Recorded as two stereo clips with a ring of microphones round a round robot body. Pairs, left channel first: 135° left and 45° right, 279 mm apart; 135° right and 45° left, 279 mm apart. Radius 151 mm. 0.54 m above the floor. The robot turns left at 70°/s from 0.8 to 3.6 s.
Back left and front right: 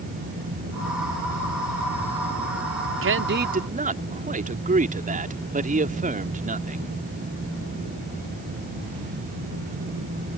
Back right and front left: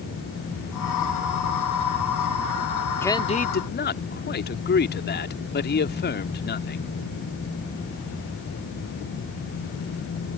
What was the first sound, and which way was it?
A man speaking, 55° right.